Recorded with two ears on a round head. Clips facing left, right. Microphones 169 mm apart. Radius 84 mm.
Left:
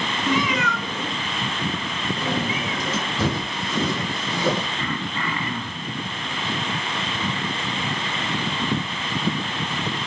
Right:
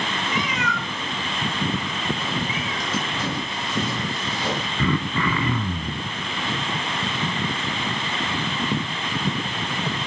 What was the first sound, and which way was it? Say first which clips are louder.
A cat meowing: left 7 dB; 65° left (ahead or behind).